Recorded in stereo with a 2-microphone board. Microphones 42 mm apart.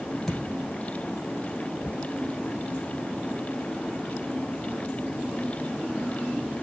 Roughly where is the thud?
Centre.